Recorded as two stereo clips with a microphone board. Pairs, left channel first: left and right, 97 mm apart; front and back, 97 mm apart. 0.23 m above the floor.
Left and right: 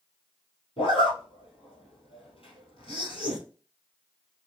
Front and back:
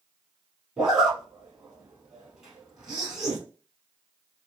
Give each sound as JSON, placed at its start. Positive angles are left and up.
{"t": 0.8, "sound": "a zipper", "azimuth_deg": 95, "distance_m": 2.0}